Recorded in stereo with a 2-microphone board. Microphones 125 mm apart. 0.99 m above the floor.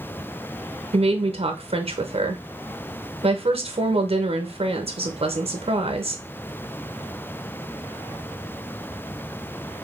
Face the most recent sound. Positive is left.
turn(degrees=-55)  # may be behind; listen again after turning